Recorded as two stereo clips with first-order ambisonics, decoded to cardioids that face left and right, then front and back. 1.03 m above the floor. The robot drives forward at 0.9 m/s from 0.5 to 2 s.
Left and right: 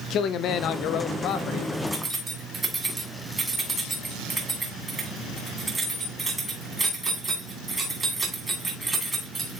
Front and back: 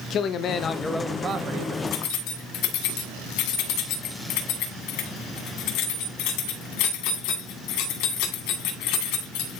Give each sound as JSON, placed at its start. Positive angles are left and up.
{"t": 0.1, "sound": "a man speaking", "azimuth_deg": 50, "distance_m": 0.7}
{"t": 1.9, "sound": "keys jangling", "azimuth_deg": -15, "distance_m": 1.9}